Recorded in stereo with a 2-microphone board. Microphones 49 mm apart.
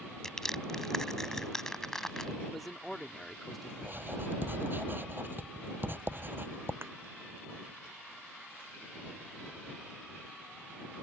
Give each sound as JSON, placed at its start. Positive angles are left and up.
{"t": 0.2, "sound": "crushing", "side_deg": 15}
{"t": 2.4, "sound": "a man speaking", "side_deg": 0}
{"t": 3.8, "sound": "writing", "side_deg": -45}
{"t": 6.8, "sound": "a thud", "side_deg": -55}